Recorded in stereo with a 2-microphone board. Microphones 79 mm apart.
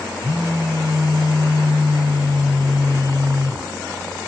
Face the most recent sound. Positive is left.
turn(degrees=55)  # may be behind; listen again after turning